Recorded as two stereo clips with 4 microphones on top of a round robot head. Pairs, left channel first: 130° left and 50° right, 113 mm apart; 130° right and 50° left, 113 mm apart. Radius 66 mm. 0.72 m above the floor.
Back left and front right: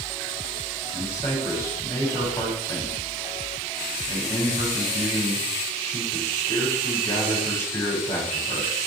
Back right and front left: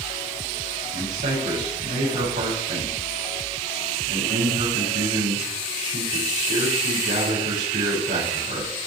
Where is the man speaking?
60° left, 6 m.